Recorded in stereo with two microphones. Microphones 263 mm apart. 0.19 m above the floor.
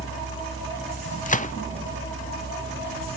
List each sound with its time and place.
1.3 s a gunshot: 30° left (ahead or behind), 0.7 m